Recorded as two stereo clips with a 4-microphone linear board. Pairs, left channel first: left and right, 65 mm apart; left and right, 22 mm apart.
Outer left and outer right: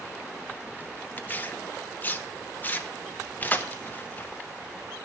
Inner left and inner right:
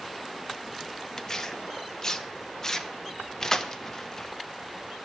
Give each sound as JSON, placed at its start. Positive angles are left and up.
{"t": 1.2, "sound": "tearing paper", "side_deg": 25, "distance_m": 1.0}